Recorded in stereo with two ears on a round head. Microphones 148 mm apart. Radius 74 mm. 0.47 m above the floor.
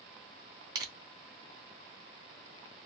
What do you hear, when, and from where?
0.8 s crushing: 20° right (ahead or behind), 0.7 m